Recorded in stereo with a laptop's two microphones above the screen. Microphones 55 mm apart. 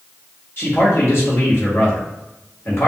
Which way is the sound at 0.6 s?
45° left (ahead or behind).